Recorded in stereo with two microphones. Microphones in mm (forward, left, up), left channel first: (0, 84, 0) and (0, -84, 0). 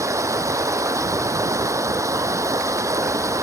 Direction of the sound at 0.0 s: 15° right (ahead or behind).